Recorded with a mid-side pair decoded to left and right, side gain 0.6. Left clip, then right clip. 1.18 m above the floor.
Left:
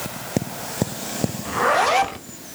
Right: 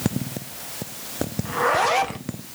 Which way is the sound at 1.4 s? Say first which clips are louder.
Left 2 dB; 15° left.